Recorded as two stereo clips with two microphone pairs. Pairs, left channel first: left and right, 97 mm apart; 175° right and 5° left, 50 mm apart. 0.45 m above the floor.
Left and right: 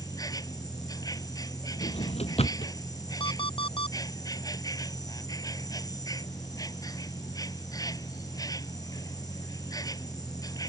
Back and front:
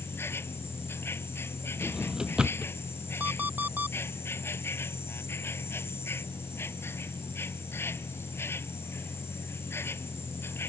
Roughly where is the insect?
Behind left.